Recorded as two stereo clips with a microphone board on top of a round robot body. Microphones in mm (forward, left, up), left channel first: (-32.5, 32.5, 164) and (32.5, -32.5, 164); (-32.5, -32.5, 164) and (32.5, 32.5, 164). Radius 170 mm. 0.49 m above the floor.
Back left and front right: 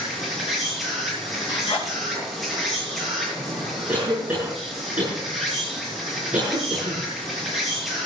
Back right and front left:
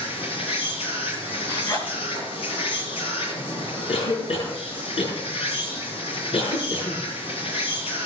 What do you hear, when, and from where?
0.0 s an insect: 135° right, 8 m
1.5 s a zipper: 170° left, 6.5 m
3.9 s a cough: 120° right, 7 m